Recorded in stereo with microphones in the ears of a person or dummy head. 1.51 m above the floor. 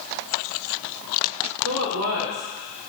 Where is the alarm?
No alarm in this recording.